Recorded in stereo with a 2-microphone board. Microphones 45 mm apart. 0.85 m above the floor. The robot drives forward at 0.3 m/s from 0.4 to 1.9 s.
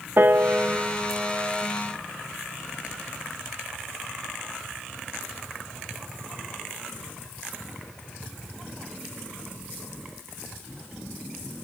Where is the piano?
50° right (ahead or behind), 0.8 m; by 1.7 s 35° right (ahead or behind), 1.1 m.